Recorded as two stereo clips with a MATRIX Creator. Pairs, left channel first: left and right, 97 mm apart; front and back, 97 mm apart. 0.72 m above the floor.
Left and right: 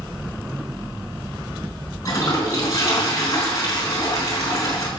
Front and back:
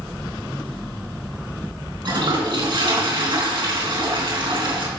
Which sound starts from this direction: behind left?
A toilet flushing, at 2.0 s.